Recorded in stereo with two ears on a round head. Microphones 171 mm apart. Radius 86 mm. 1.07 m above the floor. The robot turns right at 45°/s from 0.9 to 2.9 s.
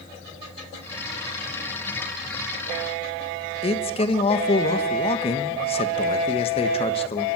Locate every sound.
3.6 s a man speaking: 30° left (ahead or behind), 1.4 m